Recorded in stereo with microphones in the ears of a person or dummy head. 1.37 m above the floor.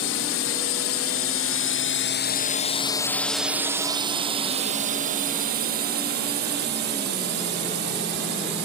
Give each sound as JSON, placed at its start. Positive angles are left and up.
{"t": 0.0, "sound": "a drone", "side_deg": 75}